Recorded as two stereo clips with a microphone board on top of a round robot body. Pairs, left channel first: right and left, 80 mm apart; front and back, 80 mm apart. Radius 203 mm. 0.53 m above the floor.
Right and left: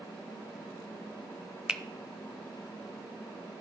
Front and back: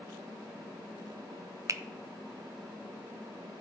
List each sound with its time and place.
1.7 s a finger snap: 165° left, 0.6 m